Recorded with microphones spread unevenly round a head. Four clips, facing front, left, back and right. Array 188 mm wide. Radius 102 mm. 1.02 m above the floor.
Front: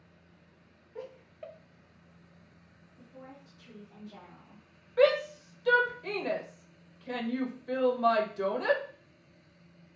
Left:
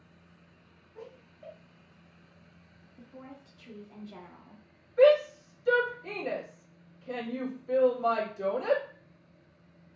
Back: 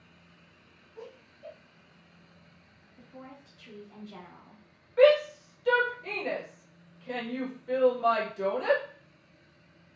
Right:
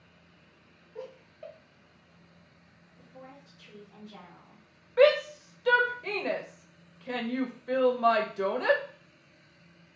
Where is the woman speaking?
145° left, 0.8 m.